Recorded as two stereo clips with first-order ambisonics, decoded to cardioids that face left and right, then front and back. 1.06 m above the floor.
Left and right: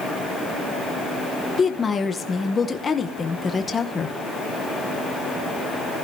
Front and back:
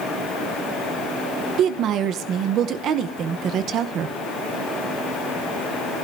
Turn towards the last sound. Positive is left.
turn(degrees=155)